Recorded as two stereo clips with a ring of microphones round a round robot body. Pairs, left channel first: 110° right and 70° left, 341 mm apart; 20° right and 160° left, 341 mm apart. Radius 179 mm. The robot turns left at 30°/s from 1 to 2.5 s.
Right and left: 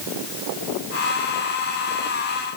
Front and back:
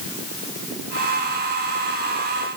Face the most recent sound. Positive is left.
No sound to turn to.